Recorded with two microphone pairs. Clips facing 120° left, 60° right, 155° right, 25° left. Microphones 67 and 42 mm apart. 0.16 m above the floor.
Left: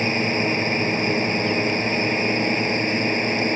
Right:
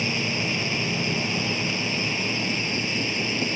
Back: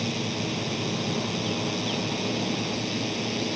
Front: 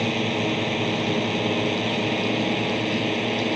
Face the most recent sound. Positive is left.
turn(degrees=80)